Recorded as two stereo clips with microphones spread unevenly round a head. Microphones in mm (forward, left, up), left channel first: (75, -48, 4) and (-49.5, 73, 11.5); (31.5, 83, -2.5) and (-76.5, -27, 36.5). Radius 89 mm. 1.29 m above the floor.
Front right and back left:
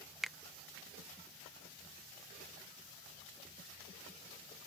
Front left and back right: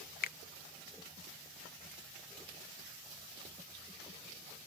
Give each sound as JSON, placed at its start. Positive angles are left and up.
{"t": 0.2, "sound": "a finger snap", "azimuth_deg": 45}